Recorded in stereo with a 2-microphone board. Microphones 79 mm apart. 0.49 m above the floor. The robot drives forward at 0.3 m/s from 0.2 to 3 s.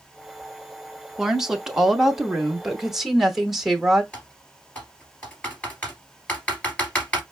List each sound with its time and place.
1.2 s a woman speaking: 5° right (ahead or behind), 0.7 m
4.1 s typing on a keyboard: 20° left (ahead or behind), 2 m